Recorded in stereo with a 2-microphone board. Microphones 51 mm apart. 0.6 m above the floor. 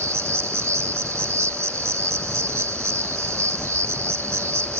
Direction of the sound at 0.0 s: 75° right (ahead or behind).